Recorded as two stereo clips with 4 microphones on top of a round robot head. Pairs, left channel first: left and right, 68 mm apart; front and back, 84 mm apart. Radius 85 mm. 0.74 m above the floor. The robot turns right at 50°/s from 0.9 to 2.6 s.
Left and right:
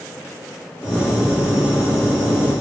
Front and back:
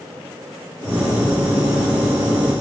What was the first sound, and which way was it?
Only background noise.